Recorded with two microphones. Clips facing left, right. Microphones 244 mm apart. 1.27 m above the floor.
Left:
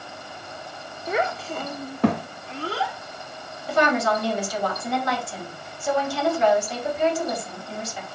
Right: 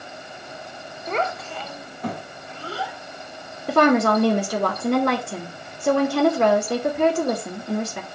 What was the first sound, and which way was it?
A child speaking, 5° left (ahead or behind).